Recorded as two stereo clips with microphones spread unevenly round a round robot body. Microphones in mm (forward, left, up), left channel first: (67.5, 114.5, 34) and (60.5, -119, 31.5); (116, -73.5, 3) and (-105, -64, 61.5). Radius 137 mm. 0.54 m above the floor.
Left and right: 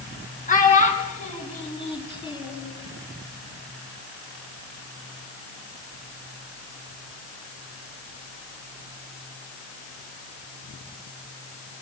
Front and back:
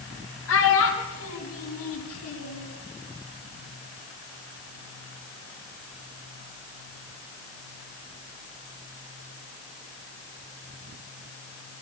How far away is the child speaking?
About 5 m.